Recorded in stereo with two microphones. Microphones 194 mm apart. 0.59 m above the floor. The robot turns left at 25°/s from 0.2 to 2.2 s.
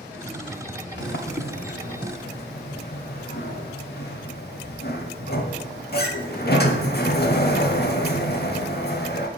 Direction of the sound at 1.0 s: 70° left (ahead or behind).